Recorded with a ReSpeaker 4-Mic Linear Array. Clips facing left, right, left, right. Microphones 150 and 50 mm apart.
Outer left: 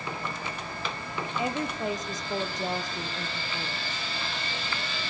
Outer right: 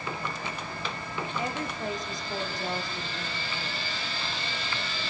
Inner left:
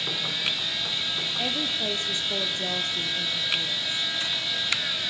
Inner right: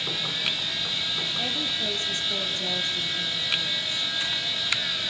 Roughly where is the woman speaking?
Left.